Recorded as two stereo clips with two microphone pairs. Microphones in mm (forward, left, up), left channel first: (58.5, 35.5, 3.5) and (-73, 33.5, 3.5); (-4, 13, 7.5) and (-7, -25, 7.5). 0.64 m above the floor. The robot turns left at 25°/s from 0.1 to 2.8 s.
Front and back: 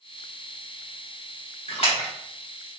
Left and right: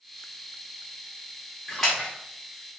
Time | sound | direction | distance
1.7 | a splash | 5° left | 0.9 m